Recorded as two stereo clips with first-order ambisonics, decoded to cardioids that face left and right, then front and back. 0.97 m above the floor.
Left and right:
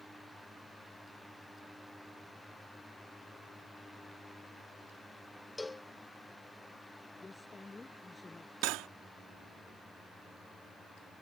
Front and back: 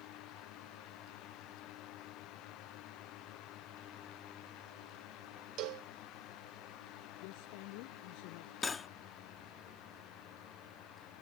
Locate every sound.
5.6 s a cowbell: 170° left
7.2 s a woman speaking: 10° left
8.6 s cutlery clinking: 70° right